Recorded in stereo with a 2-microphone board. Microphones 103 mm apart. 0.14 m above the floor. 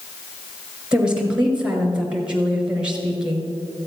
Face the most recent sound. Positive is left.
turn(degrees=-10)  # may be behind; listen again after turning